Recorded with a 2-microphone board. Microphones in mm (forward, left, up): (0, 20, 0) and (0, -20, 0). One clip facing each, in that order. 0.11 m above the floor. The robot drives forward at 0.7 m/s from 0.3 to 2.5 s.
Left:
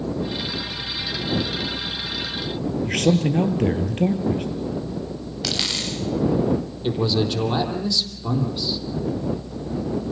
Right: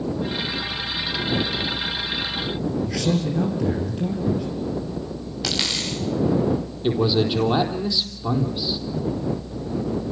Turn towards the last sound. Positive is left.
turn(degrees=-15)  # may be behind; listen again after turning